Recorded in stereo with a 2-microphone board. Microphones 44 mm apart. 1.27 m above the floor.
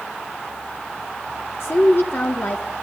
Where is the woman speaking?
60° left (ahead or behind), 1.2 m.